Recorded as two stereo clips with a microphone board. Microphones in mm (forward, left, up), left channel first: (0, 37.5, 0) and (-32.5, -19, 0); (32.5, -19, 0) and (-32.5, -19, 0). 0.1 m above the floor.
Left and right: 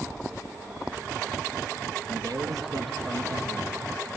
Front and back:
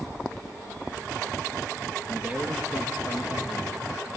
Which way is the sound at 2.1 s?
115° right.